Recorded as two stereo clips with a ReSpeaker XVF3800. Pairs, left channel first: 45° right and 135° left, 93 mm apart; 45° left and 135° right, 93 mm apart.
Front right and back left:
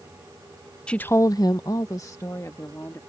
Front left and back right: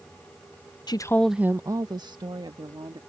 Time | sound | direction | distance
0.9 | a woman speaking | 35° left | ?